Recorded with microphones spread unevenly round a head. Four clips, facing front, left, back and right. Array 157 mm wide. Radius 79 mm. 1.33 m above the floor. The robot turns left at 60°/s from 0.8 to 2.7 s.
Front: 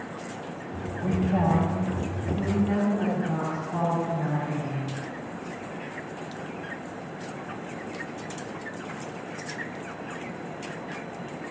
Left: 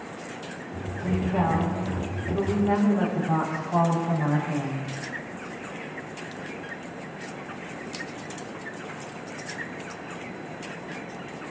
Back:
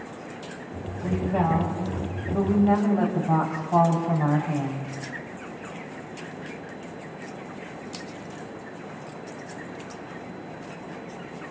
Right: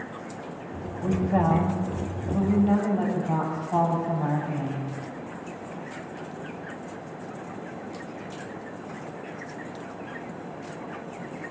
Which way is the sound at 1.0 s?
65° right.